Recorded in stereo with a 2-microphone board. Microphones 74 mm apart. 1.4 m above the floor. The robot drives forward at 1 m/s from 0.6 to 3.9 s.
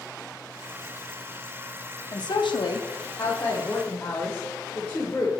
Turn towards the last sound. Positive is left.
turn(degrees=25)  # may be behind; listen again after turning